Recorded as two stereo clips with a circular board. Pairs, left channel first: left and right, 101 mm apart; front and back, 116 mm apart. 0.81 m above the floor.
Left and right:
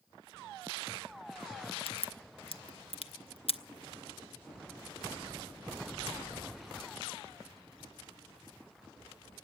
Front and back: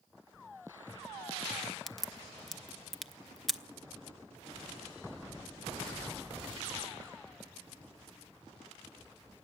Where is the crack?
85° left, 0.5 m.